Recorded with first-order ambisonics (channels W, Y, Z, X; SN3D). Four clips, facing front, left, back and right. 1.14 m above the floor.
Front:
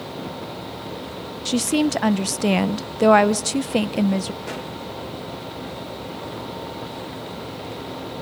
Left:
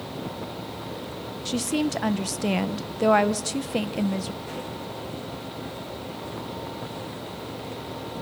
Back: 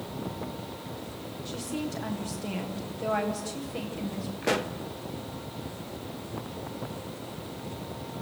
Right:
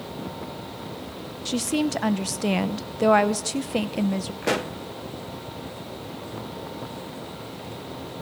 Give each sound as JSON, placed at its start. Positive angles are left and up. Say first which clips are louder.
{"t": 1.4, "sound": "a woman speaking", "louder": "right 1 dB, front 15 dB", "azimuth_deg": -5, "distance_m": 0.6}
{"t": 4.4, "sound": "a pop", "louder": "right 9 dB, back 3 dB", "azimuth_deg": -115, "distance_m": 1.1}